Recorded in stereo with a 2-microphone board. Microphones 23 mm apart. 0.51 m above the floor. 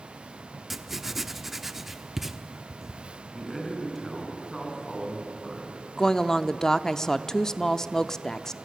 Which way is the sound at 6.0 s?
20° left (ahead or behind).